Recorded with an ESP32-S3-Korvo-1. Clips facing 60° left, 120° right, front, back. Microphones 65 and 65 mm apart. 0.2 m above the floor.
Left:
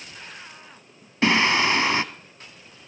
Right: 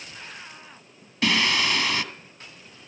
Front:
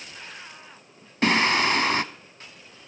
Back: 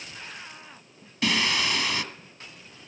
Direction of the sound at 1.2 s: 15° left.